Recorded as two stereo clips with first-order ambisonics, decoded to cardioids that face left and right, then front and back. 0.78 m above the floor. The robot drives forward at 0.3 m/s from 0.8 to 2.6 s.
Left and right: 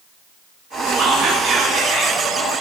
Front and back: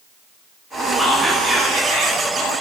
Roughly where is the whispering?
Right.